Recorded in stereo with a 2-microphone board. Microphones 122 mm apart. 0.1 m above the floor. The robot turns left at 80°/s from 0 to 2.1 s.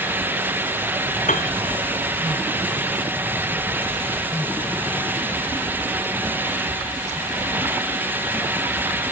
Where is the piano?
75° left (ahead or behind); by 1.6 s 70° left (ahead or behind).